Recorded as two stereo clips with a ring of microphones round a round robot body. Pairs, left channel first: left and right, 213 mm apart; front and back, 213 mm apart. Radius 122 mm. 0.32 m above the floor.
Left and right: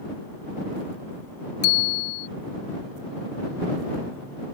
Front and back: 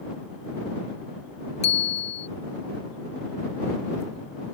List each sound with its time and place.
1.6 s a bicycle bell: 65° left